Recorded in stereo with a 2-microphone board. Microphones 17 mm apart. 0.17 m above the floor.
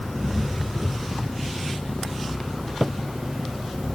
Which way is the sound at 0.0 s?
25° right (ahead or behind).